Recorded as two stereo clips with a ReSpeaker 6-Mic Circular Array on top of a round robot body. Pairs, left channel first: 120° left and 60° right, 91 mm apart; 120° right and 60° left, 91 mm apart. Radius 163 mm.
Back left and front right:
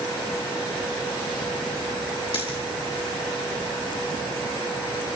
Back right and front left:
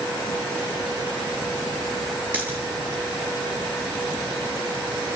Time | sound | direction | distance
2.3 | a dropped coin | 135° left | 4.5 m